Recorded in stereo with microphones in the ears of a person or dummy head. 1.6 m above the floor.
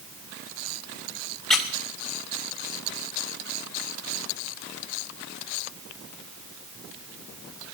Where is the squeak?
5° left (ahead or behind), 1.5 m.